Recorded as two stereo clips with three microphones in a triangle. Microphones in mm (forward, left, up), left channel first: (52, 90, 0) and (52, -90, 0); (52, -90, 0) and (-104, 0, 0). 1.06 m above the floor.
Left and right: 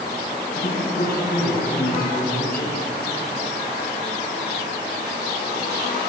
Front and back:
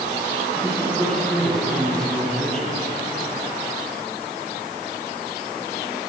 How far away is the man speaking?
About 9 m.